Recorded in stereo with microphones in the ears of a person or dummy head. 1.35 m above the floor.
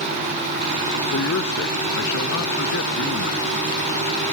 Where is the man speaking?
75° left (ahead or behind).